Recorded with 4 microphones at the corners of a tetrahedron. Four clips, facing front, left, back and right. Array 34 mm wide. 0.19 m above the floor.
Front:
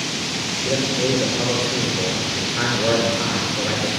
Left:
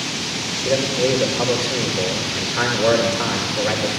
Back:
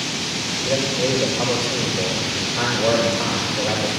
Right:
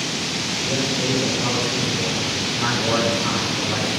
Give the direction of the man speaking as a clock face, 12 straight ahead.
9 o'clock.